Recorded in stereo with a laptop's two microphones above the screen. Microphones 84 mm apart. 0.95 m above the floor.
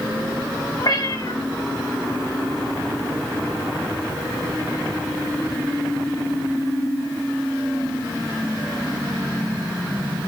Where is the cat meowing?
50° left (ahead or behind), 4 m.